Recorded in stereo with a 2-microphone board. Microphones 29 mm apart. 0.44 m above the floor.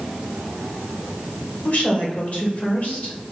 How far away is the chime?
I don't hear a chime.